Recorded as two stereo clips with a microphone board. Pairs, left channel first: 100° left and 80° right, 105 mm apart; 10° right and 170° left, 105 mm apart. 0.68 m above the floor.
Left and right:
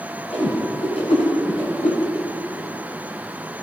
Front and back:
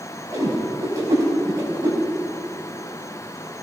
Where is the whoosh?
110° left, 6 m.